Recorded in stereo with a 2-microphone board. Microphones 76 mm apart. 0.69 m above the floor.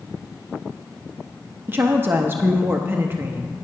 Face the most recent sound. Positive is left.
turn(degrees=-30)  # may be behind; listen again after turning